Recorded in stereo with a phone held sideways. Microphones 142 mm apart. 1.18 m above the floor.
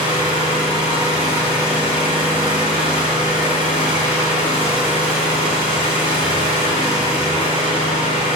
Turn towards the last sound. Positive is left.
turn(degrees=-35)  # may be behind; listen again after turning